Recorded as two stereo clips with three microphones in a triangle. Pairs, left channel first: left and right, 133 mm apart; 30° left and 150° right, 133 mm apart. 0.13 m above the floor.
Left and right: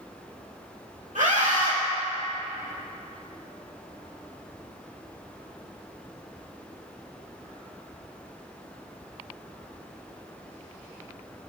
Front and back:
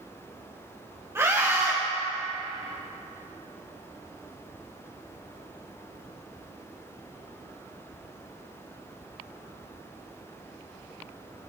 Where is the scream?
80° right, 3.5 m.